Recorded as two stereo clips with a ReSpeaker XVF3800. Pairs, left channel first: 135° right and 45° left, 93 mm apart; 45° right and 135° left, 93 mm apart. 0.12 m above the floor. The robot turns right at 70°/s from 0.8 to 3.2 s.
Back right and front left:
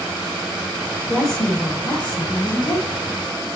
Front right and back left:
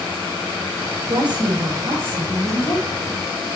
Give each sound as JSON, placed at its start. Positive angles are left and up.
{"t": 1.1, "sound": "a woman speaking", "azimuth_deg": 125, "distance_m": 2.0}